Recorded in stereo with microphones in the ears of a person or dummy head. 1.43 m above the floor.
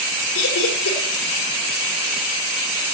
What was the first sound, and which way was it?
Laughter, 80° left.